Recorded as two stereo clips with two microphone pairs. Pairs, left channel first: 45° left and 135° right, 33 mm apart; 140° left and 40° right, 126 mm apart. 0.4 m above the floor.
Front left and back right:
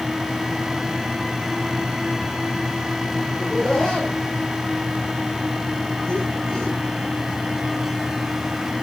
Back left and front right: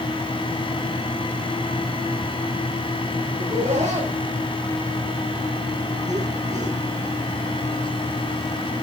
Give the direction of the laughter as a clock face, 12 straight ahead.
1 o'clock.